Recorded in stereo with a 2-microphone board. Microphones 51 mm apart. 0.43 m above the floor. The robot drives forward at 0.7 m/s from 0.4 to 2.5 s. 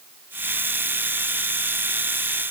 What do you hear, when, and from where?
Only background noise.